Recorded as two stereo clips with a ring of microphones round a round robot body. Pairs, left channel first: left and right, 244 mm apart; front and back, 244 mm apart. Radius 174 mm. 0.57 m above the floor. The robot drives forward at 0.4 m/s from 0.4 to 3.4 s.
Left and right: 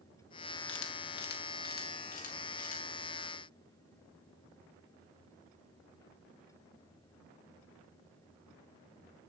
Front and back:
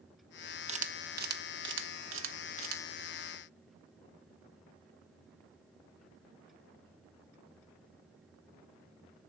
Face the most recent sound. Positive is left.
turn(degrees=160)